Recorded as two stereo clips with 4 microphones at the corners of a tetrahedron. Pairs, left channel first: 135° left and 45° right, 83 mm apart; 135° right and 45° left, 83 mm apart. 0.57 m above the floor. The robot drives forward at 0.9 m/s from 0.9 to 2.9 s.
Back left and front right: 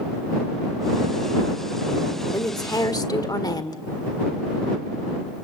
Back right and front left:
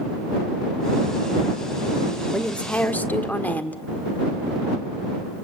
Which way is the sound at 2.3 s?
145° left.